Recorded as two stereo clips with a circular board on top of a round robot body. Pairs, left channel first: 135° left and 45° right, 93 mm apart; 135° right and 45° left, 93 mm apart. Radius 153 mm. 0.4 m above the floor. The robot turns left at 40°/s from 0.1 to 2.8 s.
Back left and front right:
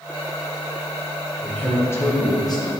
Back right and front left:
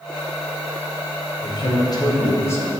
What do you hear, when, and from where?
1.4 s a man speaking: 145° right, 1.7 m; by 2.7 s 160° left, 1.7 m